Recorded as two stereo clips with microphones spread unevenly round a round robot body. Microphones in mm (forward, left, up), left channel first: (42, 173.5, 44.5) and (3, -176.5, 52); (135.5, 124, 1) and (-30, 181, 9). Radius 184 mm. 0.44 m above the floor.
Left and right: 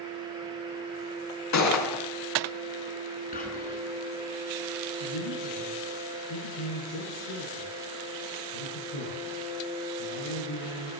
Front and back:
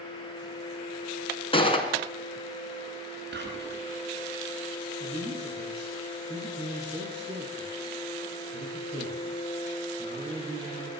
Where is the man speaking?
100° left, 6.5 m.